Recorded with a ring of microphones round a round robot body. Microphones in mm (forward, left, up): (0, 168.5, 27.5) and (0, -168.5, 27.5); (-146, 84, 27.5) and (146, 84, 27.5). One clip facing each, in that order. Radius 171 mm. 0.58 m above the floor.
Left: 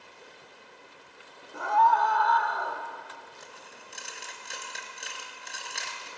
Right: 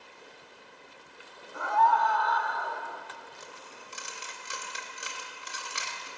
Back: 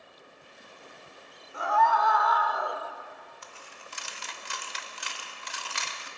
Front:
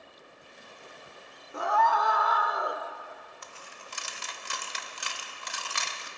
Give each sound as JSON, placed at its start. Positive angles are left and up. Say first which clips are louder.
{"t": 1.5, "sound": "a scream", "louder": "left 1 dB, back 1 dB", "azimuth_deg": 40, "distance_m": 1.5}
{"t": 3.4, "sound": "a dropped coin", "louder": "right 1 dB, even", "azimuth_deg": -5, "distance_m": 1.1}